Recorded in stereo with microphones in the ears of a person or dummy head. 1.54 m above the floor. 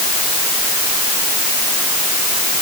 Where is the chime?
I don't hear a chime.